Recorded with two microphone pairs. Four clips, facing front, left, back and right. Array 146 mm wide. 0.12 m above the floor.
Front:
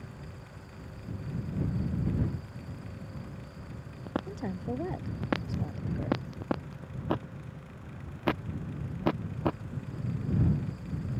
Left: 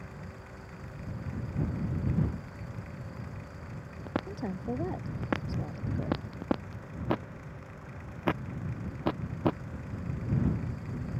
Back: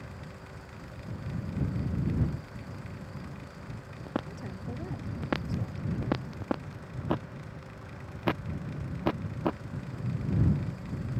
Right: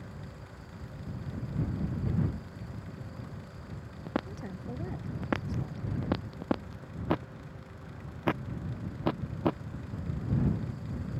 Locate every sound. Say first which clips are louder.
4.3 s a woman speaking: left 6 dB, front 5 dB; 45° left